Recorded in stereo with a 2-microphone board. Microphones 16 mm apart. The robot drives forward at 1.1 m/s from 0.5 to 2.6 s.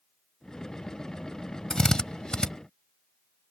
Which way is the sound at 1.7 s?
50° left (ahead or behind).